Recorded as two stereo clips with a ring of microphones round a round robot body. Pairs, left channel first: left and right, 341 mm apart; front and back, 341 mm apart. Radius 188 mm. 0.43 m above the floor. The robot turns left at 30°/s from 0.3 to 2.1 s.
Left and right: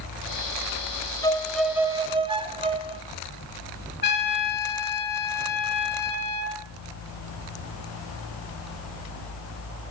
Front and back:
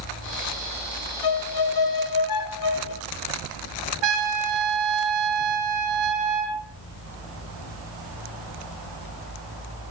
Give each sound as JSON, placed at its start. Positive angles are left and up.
{"t": 1.2, "sound": "a violin", "azimuth_deg": 10, "distance_m": 1.2}
{"t": 4.0, "sound": "a trumpet", "azimuth_deg": 155, "distance_m": 2.5}